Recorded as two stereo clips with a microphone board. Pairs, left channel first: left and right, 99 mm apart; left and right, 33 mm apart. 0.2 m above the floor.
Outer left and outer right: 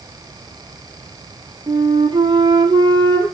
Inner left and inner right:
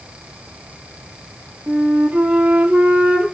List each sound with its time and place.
1.7 s a flute: 55° right (ahead or behind), 3.5 m